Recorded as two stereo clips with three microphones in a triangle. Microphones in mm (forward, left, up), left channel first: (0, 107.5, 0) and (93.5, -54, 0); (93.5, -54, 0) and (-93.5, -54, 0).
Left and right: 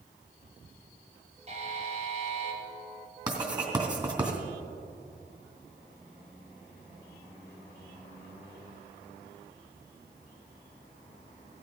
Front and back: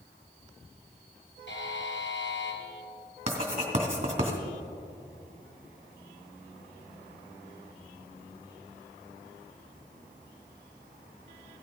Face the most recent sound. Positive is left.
turn(degrees=-125)